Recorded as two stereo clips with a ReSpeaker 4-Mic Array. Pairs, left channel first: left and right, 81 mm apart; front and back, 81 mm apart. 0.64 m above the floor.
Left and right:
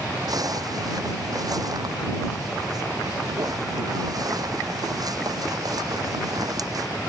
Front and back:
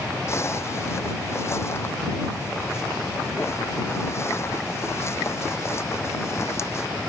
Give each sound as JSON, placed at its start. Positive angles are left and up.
{"t": 0.3, "sound": "a zipper", "azimuth_deg": -55}